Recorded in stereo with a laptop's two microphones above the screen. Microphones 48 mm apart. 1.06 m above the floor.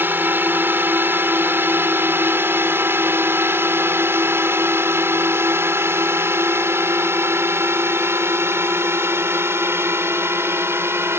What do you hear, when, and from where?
0.0 s a drone: 50° right (ahead or behind); by 11.2 s 70° right (ahead or behind)